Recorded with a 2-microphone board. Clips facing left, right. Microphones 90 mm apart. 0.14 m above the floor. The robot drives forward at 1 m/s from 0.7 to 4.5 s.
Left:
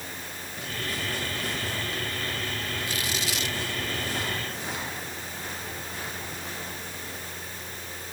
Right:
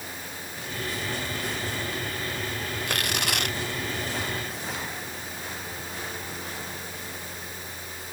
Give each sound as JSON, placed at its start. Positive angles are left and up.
{"t": 2.9, "sound": "tearing paper", "side_deg": -65}